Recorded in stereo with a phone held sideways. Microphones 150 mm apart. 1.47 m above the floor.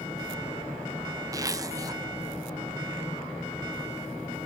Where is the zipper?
25° right (ahead or behind), 1.1 m.